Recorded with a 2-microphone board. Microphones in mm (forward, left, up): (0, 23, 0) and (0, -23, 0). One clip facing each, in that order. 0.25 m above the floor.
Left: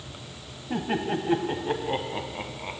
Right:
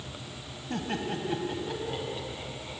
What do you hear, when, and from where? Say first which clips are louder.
0.7 s laughter: left 5 dB; 15° left (ahead or behind), 1.6 m; by 2.8 s 55° left (ahead or behind), 2.5 m